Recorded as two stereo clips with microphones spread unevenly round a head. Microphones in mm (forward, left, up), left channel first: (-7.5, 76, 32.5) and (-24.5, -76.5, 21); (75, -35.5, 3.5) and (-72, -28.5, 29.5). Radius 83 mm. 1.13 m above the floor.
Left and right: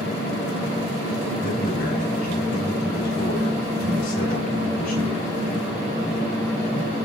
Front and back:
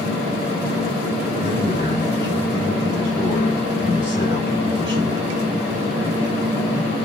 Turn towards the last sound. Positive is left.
turn(degrees=110)